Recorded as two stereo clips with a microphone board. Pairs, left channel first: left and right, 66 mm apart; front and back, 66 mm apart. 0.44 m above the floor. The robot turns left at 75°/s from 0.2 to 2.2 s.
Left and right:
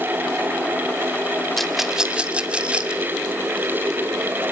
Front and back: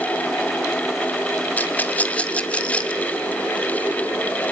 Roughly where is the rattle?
Ahead.